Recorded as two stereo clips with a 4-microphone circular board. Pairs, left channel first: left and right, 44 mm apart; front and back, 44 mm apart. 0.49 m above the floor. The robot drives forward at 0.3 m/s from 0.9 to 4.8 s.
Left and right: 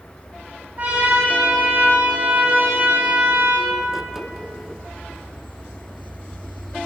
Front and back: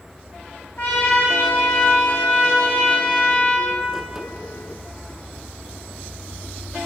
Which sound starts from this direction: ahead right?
A trumpet, at 0.8 s.